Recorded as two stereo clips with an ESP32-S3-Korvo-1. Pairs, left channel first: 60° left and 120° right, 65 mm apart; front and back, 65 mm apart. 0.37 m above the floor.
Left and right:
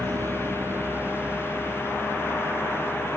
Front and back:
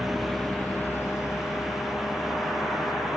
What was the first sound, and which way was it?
A vehicle, 95° right.